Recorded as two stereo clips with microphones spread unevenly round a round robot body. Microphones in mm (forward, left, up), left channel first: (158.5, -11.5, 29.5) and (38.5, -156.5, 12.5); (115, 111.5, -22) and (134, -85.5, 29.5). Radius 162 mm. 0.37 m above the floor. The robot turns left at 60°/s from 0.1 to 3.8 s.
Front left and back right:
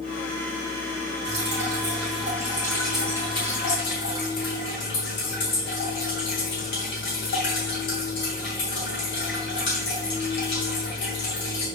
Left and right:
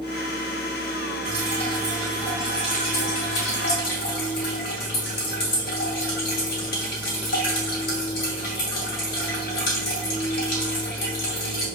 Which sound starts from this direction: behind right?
Dripping, at 1.2 s.